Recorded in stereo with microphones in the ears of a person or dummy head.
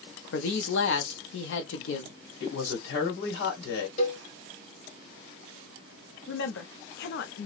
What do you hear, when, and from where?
0.3 s a man speaking: 70° left (ahead or behind), 0.7 m
2.4 s a woman speaking: 75° left (ahead or behind), 1.8 m
4.0 s a cowbell: 40° left (ahead or behind), 1.5 m
6.3 s a woman speaking: 70° left (ahead or behind), 0.6 m